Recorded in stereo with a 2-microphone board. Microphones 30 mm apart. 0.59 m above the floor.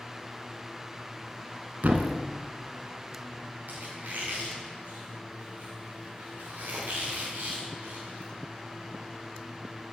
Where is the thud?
75° right (ahead or behind), 1.2 m.